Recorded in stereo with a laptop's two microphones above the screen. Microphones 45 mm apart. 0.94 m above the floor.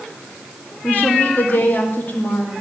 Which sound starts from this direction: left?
A woman speaking, at 0.8 s.